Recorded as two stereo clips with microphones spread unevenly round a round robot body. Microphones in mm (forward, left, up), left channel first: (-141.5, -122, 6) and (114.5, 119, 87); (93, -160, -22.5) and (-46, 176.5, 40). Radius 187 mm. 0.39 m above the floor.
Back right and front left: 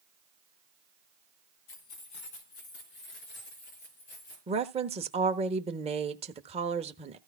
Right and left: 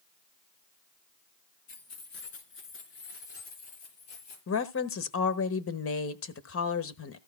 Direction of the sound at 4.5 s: 35° right.